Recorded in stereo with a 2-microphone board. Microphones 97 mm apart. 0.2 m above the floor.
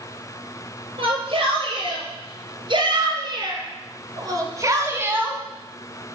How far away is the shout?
About 5 m.